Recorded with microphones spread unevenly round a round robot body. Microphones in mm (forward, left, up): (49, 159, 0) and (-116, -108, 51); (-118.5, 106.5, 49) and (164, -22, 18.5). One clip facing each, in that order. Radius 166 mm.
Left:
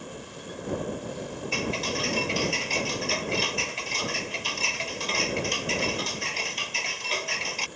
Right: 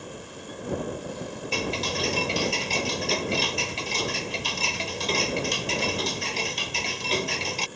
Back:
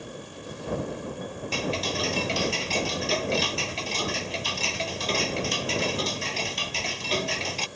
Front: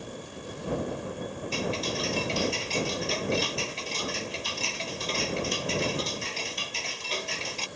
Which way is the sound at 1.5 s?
165° right.